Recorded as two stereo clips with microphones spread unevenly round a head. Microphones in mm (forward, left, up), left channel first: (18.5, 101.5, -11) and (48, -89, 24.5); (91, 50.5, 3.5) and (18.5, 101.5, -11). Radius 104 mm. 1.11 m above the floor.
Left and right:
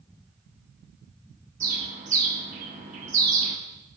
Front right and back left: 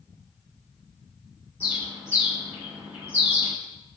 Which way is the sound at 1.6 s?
140° right.